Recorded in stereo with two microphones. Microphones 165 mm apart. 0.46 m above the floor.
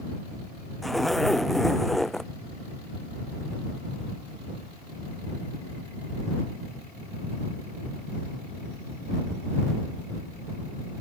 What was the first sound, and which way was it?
A zipper, centre (ahead or behind).